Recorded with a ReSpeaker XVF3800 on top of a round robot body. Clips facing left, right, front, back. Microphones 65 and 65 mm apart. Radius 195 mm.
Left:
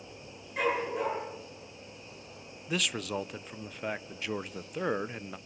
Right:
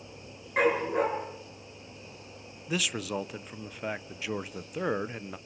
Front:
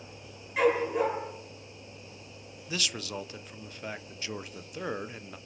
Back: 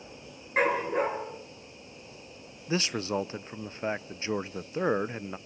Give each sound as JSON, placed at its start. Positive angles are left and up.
{"t": 0.6, "sound": "a dog barking", "azimuth_deg": -130, "distance_m": 7.5}
{"t": 2.7, "sound": "a man speaking", "azimuth_deg": -175, "distance_m": 0.8}